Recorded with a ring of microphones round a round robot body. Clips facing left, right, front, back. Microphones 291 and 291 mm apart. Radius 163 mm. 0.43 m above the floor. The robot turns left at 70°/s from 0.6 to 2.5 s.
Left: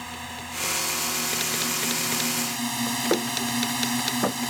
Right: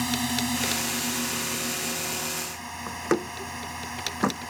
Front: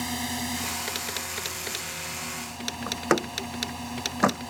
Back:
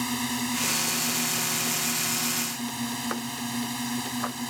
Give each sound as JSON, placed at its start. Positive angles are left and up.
{"t": 0.0, "sound": "a drone", "azimuth_deg": -110}
{"t": 2.9, "sound": "a door slam", "azimuth_deg": -20}